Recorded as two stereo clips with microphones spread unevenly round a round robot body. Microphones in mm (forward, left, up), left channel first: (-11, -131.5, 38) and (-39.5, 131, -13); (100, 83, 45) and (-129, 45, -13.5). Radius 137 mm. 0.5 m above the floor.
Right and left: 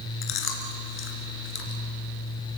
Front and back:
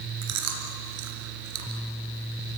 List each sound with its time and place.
0.2 s chewing: 130° right, 2.5 m